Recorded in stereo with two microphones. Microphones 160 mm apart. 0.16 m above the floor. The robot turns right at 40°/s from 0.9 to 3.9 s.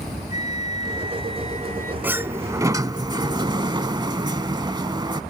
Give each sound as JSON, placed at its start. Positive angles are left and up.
{"t": 0.3, "sound": "a flute", "azimuth_deg": 125}
{"t": 2.0, "sound": "a sliding door", "side_deg": -10}